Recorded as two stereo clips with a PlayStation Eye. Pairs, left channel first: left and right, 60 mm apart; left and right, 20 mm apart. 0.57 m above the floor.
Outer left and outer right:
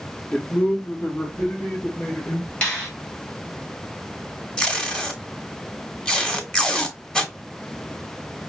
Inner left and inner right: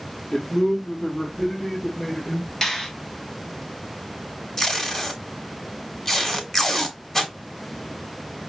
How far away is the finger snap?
About 3 m.